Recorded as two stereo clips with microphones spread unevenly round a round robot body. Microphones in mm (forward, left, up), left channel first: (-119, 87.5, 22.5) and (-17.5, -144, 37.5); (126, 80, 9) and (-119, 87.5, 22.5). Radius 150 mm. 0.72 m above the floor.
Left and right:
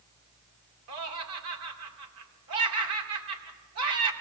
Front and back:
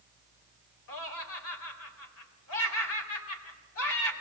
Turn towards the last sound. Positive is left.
turn(degrees=-40)